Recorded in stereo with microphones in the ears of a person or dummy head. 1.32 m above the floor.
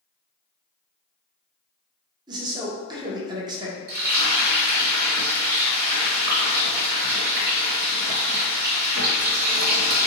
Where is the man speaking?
20° right (ahead or behind), 1.2 m.